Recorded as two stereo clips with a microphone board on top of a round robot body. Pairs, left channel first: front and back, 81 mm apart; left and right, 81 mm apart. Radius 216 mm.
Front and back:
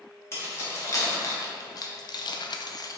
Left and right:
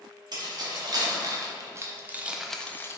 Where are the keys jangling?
55° right, 1.3 m; by 3.0 s 45° left, 0.5 m.